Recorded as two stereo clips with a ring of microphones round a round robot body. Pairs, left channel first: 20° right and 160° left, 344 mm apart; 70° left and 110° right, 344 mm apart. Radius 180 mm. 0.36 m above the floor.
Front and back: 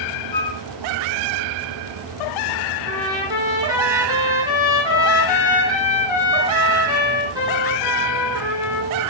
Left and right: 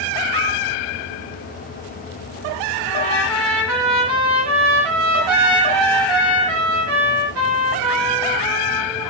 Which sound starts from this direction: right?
A flute, at 0.3 s.